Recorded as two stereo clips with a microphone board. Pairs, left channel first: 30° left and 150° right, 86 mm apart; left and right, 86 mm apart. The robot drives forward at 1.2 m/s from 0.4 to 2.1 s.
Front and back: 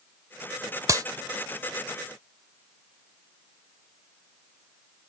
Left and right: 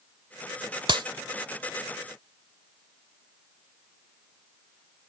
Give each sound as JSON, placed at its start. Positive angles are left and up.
{"t": 0.9, "sound": "a clap", "azimuth_deg": -100}